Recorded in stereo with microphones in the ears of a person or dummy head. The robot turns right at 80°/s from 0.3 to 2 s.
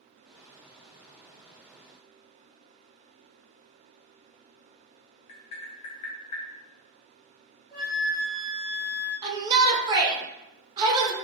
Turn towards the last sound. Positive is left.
turn(degrees=-20)  # may be behind; listen again after turning